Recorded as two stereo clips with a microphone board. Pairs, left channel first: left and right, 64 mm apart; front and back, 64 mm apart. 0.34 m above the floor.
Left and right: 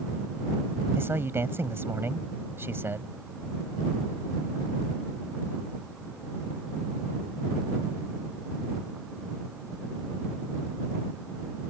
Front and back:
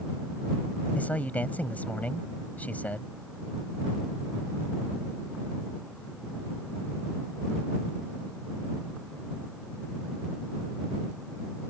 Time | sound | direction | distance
0.9 | a man speaking | 55° right | ?